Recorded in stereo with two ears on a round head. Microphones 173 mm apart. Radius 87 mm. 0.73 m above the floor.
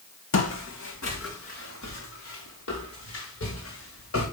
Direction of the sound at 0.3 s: 70° left (ahead or behind).